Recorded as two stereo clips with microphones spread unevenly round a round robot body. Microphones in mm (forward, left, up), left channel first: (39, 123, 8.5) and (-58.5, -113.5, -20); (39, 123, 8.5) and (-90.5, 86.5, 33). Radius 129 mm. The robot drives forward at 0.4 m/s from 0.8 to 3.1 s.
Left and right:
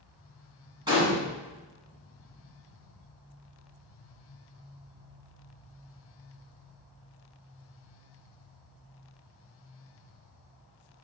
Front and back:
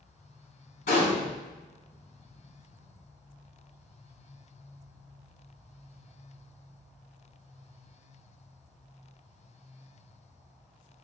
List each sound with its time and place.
0.9 s a gunshot: 35° right, 1.1 m; by 1.2 s 45° right, 1.0 m